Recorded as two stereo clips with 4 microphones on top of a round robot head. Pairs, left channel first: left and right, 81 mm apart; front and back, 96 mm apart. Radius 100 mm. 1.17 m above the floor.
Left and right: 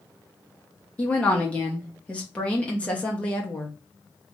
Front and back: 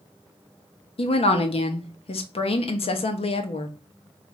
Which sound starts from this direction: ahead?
A woman speaking, at 1.0 s.